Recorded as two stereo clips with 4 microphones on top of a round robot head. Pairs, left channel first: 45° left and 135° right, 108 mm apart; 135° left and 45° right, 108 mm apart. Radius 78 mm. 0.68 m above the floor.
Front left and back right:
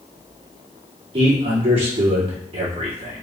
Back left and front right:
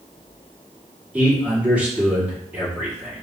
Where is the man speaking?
125° right, 1.7 m.